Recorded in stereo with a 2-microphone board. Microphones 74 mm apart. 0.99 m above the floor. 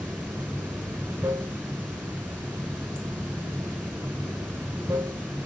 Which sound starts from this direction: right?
Running water, at 0.0 s.